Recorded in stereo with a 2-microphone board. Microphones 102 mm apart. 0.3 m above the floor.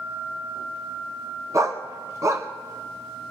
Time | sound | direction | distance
1.5 | a dog barking | 35° right (ahead or behind) | 1.2 m